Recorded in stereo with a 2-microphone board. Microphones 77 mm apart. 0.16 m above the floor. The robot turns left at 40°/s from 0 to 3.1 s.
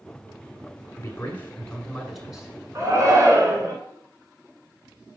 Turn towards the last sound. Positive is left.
turn(degrees=-45)  # may be behind; listen again after turning